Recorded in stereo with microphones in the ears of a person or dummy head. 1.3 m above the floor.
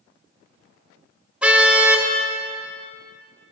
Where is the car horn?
10° right (ahead or behind), 3.5 m.